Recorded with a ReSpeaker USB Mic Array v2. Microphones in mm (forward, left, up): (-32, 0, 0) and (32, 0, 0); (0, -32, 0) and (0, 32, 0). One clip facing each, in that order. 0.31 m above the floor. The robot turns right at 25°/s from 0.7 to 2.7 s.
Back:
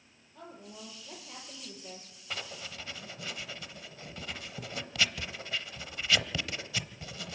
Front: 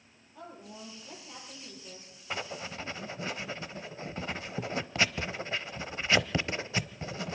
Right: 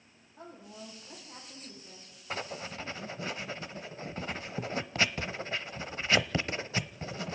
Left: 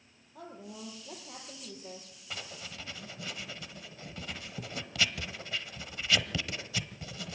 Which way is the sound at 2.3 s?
60° right.